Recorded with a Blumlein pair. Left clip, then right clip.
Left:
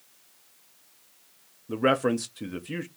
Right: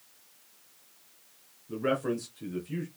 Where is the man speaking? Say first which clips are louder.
Left 6 dB; 60° left, 0.6 m.